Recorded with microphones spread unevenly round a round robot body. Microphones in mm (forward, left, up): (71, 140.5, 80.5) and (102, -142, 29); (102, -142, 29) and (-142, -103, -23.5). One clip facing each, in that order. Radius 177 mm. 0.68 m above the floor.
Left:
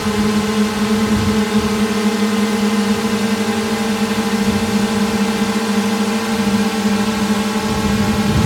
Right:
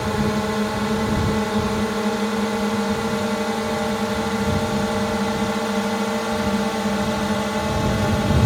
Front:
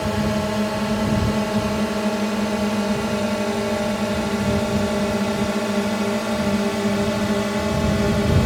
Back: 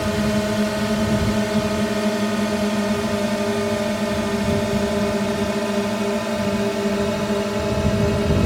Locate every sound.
0.0 s a drone: 100° left; by 8.5 s 70° left